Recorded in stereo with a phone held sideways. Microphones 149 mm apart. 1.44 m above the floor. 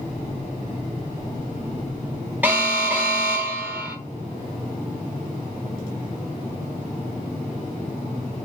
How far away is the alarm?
About 1.1 m.